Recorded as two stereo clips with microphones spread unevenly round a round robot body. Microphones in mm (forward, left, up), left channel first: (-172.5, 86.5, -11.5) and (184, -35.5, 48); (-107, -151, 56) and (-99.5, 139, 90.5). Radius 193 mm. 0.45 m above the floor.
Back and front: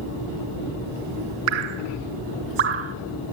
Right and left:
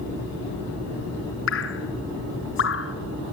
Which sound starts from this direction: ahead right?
Dripping, at 1.5 s.